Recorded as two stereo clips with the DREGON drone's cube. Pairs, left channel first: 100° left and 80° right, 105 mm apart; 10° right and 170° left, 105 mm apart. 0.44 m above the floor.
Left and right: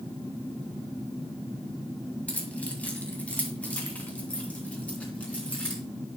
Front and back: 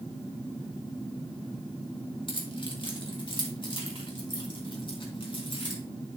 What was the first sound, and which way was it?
Keys jangling, 25° left.